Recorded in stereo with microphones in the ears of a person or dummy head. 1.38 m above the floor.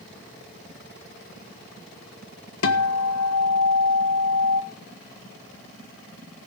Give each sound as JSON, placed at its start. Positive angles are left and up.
{"t": 2.6, "sound": "a guitar", "side_deg": 75, "distance_m": 1.3}